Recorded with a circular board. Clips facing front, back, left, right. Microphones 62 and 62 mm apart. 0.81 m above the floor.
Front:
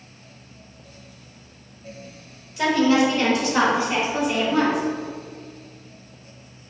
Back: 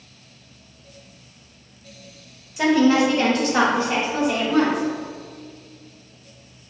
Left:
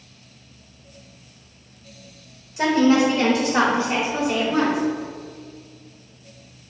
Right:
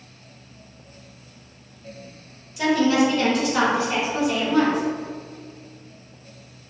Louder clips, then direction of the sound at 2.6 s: Back 2 dB, left 2 dB; 115° left.